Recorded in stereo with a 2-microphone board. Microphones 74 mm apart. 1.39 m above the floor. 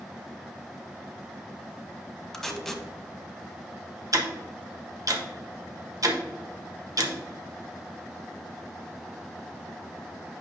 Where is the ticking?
50° right (ahead or behind), 1.1 m.